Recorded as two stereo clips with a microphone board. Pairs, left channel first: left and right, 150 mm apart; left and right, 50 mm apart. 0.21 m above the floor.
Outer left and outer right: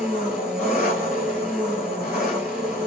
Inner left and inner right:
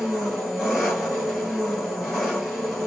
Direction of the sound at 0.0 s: Centre (ahead or behind).